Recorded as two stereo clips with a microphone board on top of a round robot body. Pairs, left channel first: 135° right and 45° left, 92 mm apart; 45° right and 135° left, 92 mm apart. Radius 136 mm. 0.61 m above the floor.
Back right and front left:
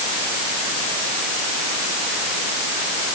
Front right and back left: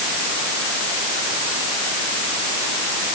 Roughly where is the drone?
No drone in this recording.